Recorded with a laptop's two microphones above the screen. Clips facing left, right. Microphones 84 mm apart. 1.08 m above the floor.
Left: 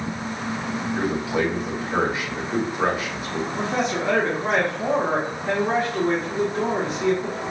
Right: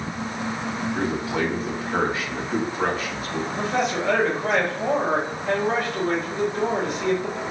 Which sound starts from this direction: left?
A man speaking, at 3.5 s.